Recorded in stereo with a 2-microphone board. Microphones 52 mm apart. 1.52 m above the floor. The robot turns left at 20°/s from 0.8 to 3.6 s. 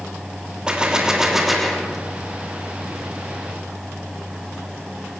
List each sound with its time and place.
0.7 s a gunshot: 15° right (ahead or behind), 3 m; by 2.0 s 10° left (ahead or behind), 3 m